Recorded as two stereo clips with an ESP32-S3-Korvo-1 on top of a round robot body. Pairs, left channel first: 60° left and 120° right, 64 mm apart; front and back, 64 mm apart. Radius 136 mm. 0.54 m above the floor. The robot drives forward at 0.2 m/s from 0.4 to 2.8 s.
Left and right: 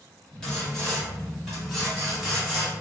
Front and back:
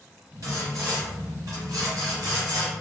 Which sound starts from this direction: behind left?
Sawing, at 0.4 s.